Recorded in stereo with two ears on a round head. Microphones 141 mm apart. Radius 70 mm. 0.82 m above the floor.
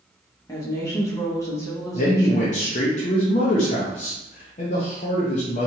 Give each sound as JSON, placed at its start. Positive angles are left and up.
{"t": 0.5, "sound": "a woman speaking", "side_deg": 20, "distance_m": 0.8}
{"t": 1.9, "sound": "a man speaking", "side_deg": 45, "distance_m": 0.5}